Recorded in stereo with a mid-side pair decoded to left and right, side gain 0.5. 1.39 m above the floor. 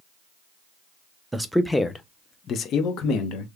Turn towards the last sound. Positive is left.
turn(degrees=75)